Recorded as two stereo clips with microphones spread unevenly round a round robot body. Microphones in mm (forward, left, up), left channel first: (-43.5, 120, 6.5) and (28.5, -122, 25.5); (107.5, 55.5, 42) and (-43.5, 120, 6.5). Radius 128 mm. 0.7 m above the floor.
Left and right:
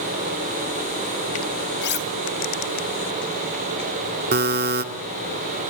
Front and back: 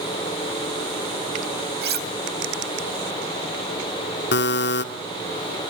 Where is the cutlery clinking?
155° left, 2.5 m.